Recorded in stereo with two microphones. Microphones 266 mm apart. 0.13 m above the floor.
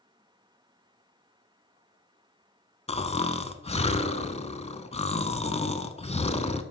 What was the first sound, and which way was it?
Snoring, 25° left (ahead or behind).